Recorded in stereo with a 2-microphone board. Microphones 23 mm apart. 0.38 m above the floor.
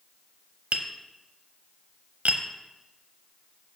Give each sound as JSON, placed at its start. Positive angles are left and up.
{"t": 0.7, "sound": "tapping", "side_deg": -60, "distance_m": 0.8}